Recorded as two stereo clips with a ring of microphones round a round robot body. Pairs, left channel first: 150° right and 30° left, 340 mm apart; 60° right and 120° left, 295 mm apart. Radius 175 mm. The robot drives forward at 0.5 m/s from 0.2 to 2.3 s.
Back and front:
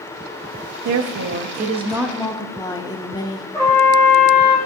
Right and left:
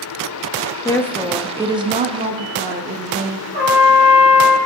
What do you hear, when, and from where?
0.8 s a woman speaking: 15° left, 0.7 m; by 3.4 s 145° left, 0.5 m
3.5 s a trumpet: 130° left, 3 m